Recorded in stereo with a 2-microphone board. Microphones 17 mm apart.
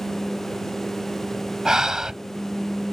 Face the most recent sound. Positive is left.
turn(degrees=-40)  # may be behind; listen again after turning